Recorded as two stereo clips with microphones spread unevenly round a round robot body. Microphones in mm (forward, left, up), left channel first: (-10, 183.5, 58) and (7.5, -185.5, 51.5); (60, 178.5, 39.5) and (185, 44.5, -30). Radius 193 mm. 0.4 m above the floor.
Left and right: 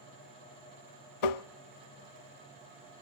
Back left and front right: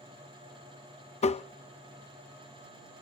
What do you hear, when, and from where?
1.2 s tapping: 80° left, 0.6 m